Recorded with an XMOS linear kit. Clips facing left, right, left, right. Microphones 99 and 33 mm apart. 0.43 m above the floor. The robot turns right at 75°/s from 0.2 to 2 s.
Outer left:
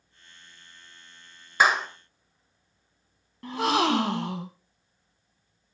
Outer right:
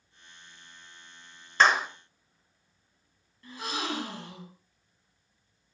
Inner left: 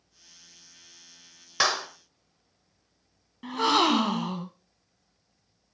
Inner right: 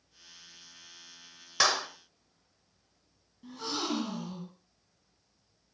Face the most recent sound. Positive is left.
turn(degrees=75)  # may be behind; listen again after turning